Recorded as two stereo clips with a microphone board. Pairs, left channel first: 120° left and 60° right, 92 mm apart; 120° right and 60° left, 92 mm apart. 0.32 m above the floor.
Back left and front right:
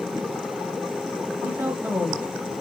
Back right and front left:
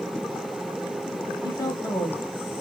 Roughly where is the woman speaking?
Behind right.